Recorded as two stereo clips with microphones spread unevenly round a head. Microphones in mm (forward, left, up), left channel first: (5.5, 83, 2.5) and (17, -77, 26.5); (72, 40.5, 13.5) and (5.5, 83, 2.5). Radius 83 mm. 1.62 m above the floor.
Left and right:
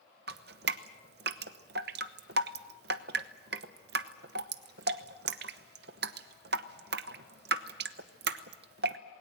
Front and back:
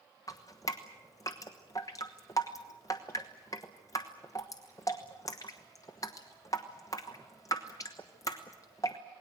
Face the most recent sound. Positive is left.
turn(degrees=-90)